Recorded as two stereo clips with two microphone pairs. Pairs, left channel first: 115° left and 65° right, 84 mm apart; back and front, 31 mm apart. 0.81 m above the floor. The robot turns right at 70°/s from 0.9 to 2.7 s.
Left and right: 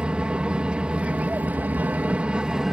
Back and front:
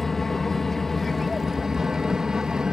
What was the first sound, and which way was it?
An aircraft, 115° right.